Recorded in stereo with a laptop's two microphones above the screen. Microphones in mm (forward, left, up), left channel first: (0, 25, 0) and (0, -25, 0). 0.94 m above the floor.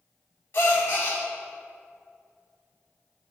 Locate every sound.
0.5 s a gasp: 45° left (ahead or behind), 2.5 m